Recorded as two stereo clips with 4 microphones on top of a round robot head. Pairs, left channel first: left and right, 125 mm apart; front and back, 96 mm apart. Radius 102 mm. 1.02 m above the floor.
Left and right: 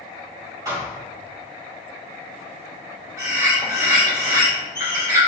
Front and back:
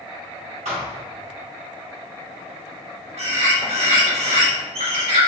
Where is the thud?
160° right, 1.8 m.